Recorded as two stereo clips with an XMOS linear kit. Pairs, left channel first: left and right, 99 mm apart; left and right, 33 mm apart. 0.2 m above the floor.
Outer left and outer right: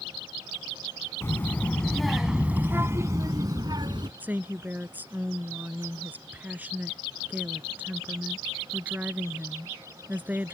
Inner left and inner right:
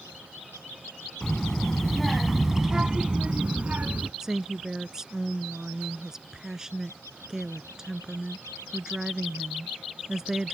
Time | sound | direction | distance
1.2 | a child speaking | 25° left (ahead or behind) | ?
4.2 | a woman speaking | 15° right (ahead or behind) | ?